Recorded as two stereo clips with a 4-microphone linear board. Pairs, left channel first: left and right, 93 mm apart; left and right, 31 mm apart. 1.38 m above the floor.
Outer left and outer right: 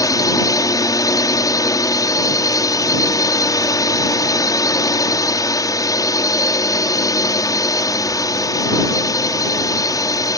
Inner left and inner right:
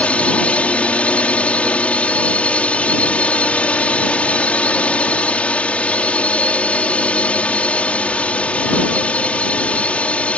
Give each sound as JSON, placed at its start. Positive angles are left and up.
{"t": 0.0, "sound": "a drone", "side_deg": 40}